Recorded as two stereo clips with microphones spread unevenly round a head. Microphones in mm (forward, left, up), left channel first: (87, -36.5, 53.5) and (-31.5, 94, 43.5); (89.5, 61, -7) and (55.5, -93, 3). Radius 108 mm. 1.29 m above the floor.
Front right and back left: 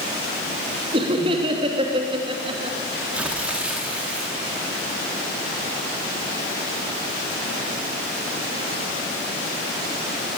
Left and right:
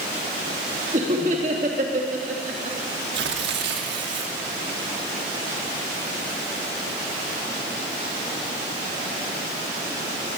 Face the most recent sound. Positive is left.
turn(degrees=-145)